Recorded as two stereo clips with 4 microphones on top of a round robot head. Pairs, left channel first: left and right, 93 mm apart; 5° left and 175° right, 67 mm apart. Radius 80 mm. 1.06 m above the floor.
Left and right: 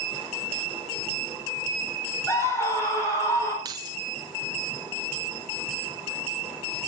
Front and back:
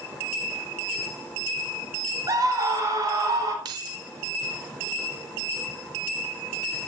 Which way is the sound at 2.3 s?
155° left.